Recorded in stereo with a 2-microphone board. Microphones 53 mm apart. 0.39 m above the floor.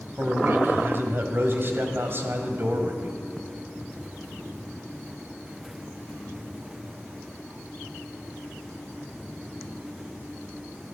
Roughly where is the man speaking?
Right.